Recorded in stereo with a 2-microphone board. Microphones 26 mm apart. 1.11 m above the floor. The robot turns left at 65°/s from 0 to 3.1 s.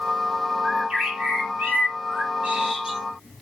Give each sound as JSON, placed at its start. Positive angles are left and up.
{"t": 0.6, "sound": "a bird", "azimuth_deg": -5, "distance_m": 9.0}